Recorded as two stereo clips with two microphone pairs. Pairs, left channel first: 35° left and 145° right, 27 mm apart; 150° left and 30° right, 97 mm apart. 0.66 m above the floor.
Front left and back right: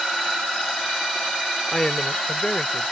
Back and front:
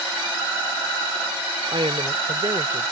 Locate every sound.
1.7 s a woman speaking: 30° right; by 2.9 s 5° right